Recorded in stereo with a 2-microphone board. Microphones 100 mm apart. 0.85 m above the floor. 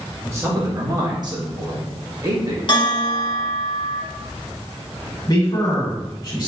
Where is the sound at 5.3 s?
40° left (ahead or behind), 1.9 m.